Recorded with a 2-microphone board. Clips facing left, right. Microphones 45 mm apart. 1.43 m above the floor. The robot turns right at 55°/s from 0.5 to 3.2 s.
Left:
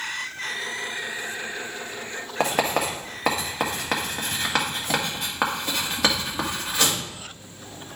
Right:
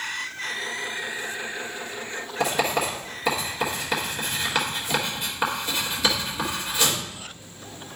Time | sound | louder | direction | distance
2.4 | writing | left 1 dB | 60° left (ahead or behind) | 1.9 m